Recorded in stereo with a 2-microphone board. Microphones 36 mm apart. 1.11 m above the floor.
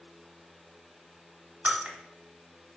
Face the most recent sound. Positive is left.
turn(degrees=-50)  # may be behind; listen again after turning